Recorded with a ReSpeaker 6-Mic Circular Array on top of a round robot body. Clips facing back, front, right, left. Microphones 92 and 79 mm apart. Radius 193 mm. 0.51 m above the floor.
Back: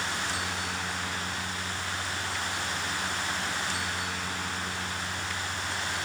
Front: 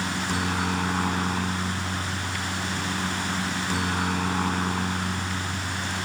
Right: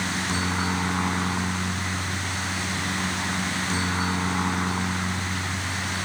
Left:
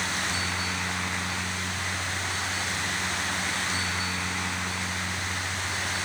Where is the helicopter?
35° right.